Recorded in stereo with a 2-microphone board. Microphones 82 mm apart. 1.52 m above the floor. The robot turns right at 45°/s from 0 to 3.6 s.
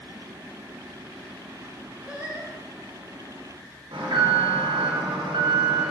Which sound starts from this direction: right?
An alarm, at 3.9 s.